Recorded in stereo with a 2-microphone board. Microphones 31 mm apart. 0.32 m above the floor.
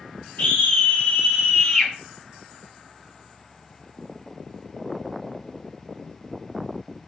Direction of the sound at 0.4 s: 55° left (ahead or behind).